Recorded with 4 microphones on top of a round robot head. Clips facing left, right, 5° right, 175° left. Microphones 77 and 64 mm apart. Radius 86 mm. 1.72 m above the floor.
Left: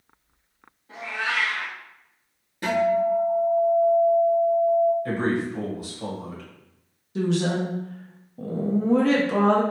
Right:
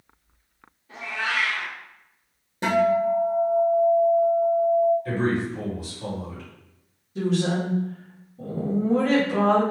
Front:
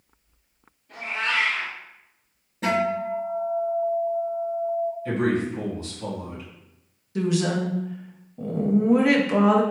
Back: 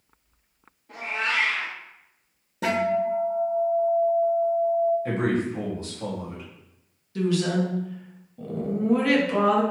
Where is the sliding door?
No sliding door in this recording.